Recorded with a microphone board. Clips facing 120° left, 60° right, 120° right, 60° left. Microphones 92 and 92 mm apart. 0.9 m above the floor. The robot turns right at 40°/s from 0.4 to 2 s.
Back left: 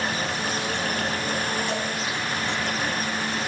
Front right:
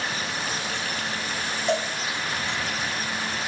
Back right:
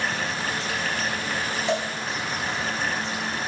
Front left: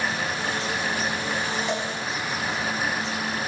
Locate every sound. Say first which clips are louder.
1.7 s a cowbell: front right 3 dB, back right 2 dB; 55° right, 1.9 m; by 1.9 s 45° right, 1.9 m